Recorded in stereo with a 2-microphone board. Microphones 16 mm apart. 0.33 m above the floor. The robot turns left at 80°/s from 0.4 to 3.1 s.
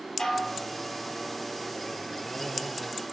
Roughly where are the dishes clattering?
Left.